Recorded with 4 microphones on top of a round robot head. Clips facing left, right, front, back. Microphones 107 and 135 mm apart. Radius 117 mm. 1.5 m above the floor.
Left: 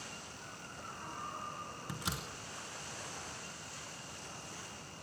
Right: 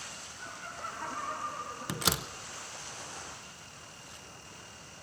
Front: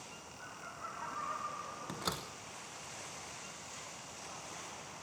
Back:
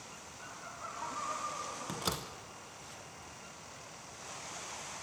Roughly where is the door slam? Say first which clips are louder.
Right 9 dB, back 2 dB; right.